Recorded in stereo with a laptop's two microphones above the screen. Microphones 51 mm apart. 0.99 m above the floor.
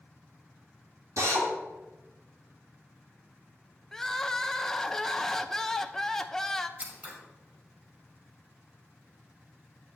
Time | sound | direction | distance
1.2 | a drill | 90° right | 1.9 m
3.9 | crying | 10° left (ahead or behind) | 0.6 m
6.8 | scissors | 35° right (ahead or behind) | 2.5 m